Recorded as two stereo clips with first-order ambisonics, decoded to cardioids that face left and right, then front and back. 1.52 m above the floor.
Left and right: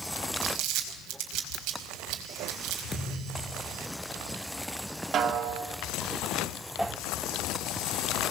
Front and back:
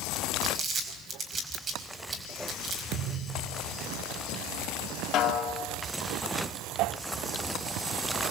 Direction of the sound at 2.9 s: 165° left.